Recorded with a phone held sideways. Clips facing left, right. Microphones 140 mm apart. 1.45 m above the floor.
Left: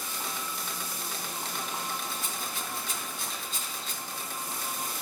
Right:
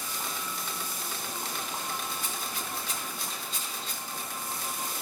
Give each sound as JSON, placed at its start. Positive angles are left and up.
{"t": 2.1, "sound": "a rattle", "side_deg": 45, "distance_m": 2.5}